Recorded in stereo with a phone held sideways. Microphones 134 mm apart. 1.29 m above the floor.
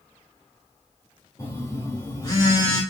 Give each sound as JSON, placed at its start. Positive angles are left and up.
{"t": 1.4, "sound": "a phone buzzing", "side_deg": 30, "distance_m": 1.1}